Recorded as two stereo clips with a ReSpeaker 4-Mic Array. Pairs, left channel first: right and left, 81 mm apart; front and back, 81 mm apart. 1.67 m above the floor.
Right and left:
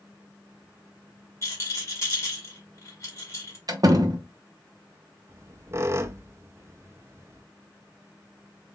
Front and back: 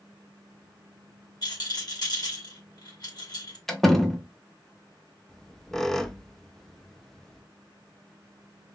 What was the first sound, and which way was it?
A rattle, 35° right.